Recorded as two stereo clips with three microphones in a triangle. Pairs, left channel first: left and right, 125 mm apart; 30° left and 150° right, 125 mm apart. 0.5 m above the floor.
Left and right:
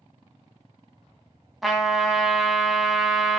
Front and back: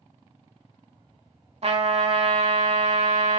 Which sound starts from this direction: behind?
A trumpet, at 1.6 s.